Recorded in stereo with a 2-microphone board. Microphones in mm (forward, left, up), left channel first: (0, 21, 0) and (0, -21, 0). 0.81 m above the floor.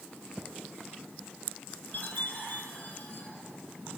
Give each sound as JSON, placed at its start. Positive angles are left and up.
{"t": 1.9, "sound": "a chime", "side_deg": 40, "distance_m": 4.0}